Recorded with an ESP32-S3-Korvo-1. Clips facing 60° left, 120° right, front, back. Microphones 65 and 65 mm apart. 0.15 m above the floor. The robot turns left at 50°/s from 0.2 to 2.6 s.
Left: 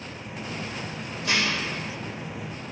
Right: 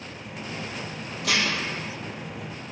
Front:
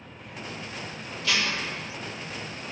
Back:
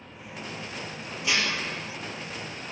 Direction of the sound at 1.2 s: 110° right.